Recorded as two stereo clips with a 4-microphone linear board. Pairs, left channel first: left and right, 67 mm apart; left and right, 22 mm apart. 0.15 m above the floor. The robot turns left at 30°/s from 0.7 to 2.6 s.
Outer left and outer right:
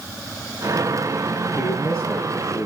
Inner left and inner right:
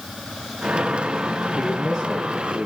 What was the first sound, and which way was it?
A man speaking, 20° left.